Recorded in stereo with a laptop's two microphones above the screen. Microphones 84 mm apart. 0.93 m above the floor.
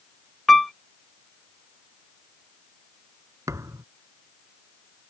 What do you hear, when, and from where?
0.5 s a piano: 5° left (ahead or behind)
3.5 s a thud: 40° right (ahead or behind)